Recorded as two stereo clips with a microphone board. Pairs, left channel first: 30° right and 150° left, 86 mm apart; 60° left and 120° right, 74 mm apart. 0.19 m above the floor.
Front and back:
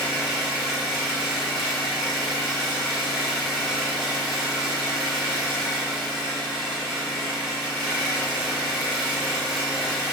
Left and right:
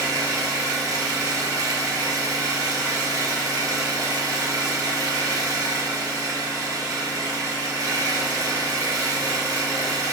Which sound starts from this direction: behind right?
An engine running, at 0.0 s.